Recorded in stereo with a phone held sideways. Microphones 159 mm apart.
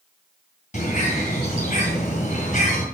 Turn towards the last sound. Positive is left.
turn(degrees=50)  # may be behind; listen again after turning